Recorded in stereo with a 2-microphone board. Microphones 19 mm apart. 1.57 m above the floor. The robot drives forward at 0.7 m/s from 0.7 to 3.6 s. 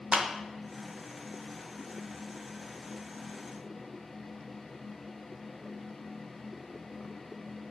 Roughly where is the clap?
Right.